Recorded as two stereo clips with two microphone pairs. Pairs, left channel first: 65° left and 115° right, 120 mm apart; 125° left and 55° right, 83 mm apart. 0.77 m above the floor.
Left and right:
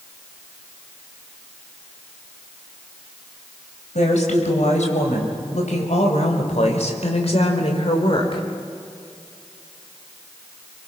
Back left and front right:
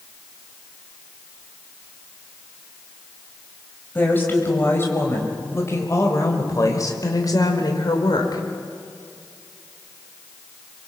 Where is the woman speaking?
60° left, 5 m; by 8.4 s 100° left, 3 m.